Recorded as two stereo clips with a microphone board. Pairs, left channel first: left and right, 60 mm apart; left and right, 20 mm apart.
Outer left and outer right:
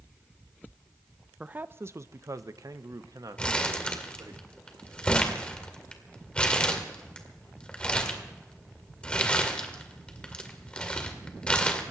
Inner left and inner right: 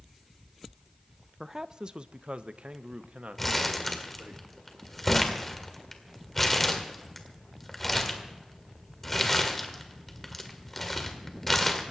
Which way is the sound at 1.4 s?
20° right (ahead or behind).